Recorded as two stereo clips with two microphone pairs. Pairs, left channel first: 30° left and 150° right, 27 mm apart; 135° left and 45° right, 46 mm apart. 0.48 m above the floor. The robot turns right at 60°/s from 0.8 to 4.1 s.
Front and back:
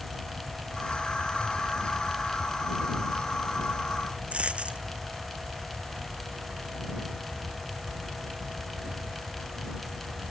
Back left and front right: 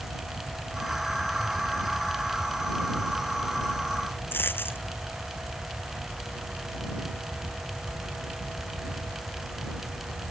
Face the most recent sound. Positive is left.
turn(degrees=170)